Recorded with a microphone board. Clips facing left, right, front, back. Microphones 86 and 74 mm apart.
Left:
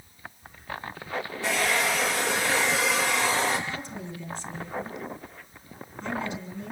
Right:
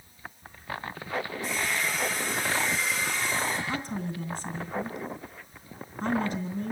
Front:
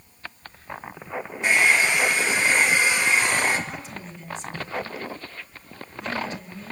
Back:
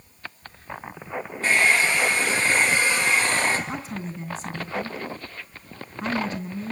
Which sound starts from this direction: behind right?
A woman speaking, at 3.7 s.